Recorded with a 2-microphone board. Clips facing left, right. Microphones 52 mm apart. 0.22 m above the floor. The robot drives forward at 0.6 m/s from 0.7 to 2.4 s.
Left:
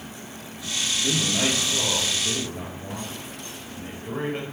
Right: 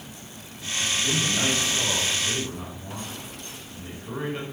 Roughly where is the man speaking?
Left.